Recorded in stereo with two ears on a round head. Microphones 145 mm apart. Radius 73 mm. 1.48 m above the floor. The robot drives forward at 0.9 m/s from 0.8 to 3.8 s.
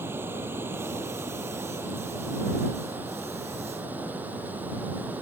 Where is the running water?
15° right (ahead or behind); by 5.2 s 10° right (ahead or behind).